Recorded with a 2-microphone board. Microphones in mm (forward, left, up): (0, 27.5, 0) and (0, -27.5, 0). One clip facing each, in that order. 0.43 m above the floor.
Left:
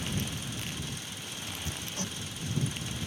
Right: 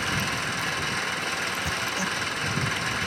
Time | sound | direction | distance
0.0 | an engine running | 70° right (ahead or behind) | ?
1.6 | hammering | 20° right (ahead or behind) | ?